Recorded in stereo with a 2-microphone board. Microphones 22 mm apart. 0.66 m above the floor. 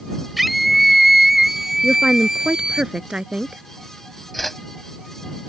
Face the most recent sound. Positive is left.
turn(degrees=5)  # may be behind; listen again after turning